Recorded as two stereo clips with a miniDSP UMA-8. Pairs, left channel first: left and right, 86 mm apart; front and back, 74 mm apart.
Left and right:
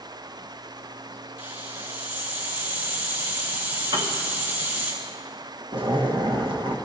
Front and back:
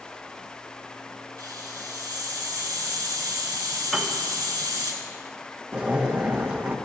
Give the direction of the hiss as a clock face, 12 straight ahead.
5 o'clock.